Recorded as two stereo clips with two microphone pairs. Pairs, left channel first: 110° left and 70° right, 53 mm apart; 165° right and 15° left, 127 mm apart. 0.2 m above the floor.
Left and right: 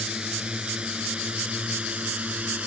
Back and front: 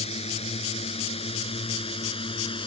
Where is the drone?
140° right; by 2.7 s 130° right.